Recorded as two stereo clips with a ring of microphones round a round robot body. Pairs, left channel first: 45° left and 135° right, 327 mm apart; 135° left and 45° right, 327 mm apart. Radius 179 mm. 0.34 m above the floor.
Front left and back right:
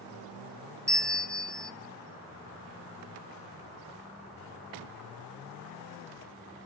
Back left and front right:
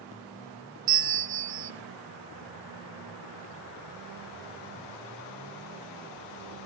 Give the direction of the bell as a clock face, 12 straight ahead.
1 o'clock.